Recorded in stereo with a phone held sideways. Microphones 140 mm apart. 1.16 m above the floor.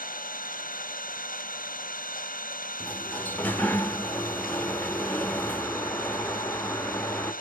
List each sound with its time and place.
0.0 s an engine running: 85° left, 0.9 m
2.8 s a sliding door: 15° left (ahead or behind), 0.8 m